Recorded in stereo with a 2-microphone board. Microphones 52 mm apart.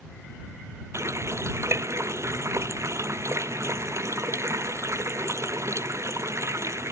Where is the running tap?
60° right (ahead or behind).